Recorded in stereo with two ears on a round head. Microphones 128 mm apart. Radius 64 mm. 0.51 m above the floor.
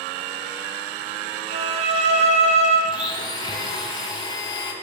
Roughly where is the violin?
Right.